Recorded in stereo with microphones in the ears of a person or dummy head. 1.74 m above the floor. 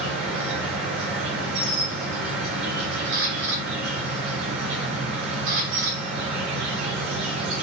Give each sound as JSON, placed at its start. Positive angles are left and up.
{"t": 0.0, "sound": "an insect", "side_deg": -65, "distance_m": 4.5}
{"t": 3.1, "sound": "a camera shutter", "side_deg": -70, "distance_m": 6.5}